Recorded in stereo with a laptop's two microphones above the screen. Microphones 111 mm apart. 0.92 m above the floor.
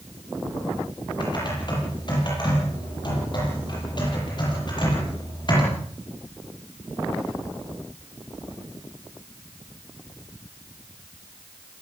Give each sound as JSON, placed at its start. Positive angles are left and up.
{"t": 1.2, "sound": "typing on a keyboard", "side_deg": 45, "distance_m": 9.5}